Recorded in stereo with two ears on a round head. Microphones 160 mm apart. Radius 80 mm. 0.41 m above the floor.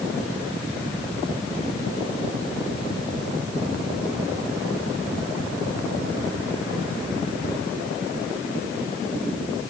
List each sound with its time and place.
Only background noise.